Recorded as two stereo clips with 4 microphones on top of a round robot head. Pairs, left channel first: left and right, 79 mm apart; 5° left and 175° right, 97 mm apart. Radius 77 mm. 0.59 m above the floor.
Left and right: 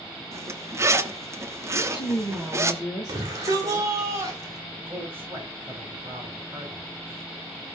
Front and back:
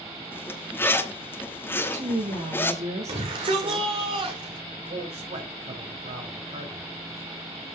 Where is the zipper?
55° right, 1.2 m.